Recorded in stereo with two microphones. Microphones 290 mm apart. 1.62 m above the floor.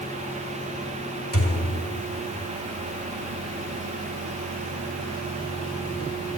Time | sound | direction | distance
1.3 | a thud | 50° left (ahead or behind) | 2 m